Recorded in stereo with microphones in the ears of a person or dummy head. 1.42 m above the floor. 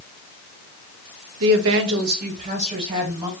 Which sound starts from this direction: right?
A woman speaking, at 1.4 s.